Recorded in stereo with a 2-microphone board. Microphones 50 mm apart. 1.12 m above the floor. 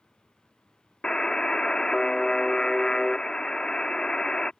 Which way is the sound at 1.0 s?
15° left (ahead or behind).